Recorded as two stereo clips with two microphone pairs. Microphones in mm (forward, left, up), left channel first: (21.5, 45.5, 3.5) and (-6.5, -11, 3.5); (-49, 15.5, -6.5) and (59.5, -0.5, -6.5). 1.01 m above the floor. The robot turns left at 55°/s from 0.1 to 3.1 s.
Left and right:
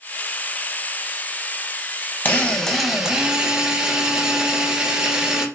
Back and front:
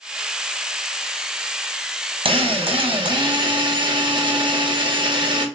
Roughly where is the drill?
Ahead.